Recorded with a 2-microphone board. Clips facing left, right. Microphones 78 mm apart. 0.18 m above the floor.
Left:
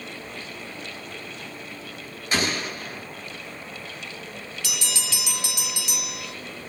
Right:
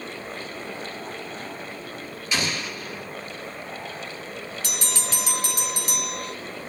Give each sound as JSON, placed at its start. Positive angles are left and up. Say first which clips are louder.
{"t": 2.3, "sound": "an explosion", "louder": "left 2 dB", "side_deg": 40, "distance_m": 1.1}
{"t": 4.6, "sound": "a bell", "louder": "even", "side_deg": -40, "distance_m": 0.9}